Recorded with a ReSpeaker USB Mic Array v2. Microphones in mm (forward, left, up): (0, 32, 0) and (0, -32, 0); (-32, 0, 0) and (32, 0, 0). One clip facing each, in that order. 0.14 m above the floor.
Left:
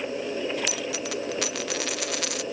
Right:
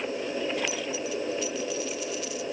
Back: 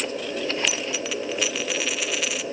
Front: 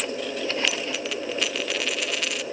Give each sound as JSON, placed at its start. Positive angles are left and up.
{"t": 0.7, "sound": "a dropped coin", "azimuth_deg": 90}